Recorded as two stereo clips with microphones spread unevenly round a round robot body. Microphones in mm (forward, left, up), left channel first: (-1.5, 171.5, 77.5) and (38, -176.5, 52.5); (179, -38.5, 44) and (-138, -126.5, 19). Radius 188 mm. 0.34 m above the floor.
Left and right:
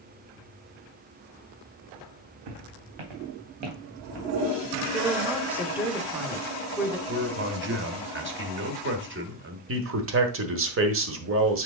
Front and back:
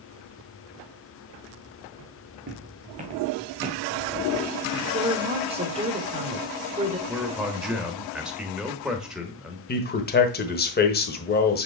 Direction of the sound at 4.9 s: 150° right.